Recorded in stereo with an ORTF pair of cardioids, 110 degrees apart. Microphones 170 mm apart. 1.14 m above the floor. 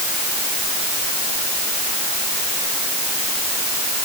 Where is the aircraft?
I don't hear an aircraft.